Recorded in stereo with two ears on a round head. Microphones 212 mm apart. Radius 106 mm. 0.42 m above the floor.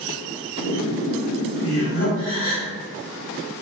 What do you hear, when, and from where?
0.6 s laughter: 35° left (ahead or behind), 1.8 m
2.2 s a gasp: 20° left (ahead or behind), 0.7 m